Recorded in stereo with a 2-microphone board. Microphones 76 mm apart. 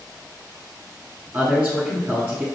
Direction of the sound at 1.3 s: 25° right (ahead or behind).